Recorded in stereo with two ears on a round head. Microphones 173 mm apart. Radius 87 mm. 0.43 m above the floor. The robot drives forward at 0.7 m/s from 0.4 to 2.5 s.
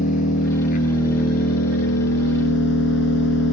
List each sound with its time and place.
0.0 s an engine running: 45° left (ahead or behind), 3 m; by 3.5 s 70° left (ahead or behind), 2.5 m